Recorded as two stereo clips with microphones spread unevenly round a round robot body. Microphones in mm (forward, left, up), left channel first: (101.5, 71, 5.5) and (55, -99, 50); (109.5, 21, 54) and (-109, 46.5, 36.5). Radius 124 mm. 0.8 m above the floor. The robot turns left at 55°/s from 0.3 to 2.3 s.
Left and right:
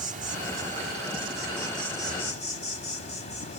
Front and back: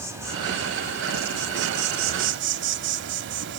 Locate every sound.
0.0 s an insect: 105° right, 0.9 m; by 3.6 s 145° left, 0.9 m